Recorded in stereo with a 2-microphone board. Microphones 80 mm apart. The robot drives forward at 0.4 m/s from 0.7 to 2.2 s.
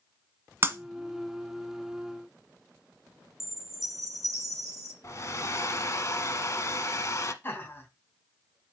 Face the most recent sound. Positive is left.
turn(degrees=30)  # may be behind; listen again after turning